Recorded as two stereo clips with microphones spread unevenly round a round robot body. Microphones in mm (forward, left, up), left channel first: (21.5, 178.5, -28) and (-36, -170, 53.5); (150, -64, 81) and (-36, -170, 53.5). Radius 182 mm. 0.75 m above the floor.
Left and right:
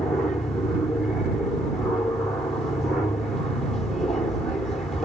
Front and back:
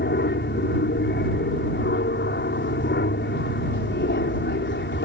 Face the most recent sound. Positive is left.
turn(degrees=0)